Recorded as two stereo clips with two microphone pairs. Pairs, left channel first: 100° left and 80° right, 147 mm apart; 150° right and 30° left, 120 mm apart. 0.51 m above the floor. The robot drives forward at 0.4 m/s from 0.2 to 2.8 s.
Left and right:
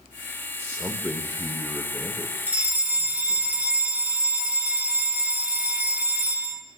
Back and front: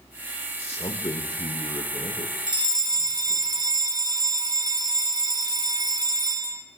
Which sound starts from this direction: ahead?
A fire alarm, at 2.5 s.